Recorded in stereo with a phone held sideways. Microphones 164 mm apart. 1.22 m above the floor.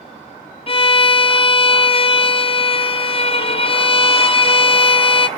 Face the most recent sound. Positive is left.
turn(degrees=35)  # may be behind; listen again after turning